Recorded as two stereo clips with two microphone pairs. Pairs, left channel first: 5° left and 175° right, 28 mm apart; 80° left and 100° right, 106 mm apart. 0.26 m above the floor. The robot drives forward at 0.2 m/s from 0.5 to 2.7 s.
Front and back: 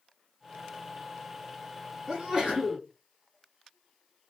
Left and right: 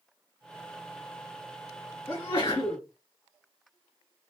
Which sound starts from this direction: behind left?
A sneeze, at 2.1 s.